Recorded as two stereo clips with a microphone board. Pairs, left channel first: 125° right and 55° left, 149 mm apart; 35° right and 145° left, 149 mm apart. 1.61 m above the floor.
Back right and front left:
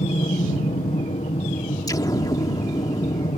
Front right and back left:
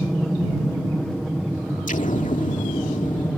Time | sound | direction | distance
0.0 | an aircraft | 120° right | ?
1.9 | an explosion | 60° right | ?